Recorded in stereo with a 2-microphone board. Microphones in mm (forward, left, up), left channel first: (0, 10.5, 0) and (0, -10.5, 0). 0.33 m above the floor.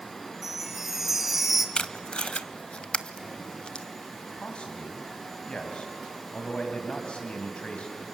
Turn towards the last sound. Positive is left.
turn(degrees=60)  # may be behind; listen again after turning